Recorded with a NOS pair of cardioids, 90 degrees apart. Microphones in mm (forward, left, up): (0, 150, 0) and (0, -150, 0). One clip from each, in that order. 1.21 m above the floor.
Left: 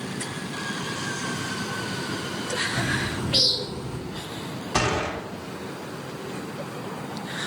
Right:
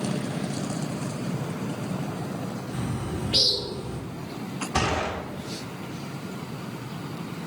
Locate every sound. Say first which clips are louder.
2.7 s a bird: left 7 dB; 15° left, 0.7 m
4.7 s a gunshot: left 2 dB; 25° left, 1.0 m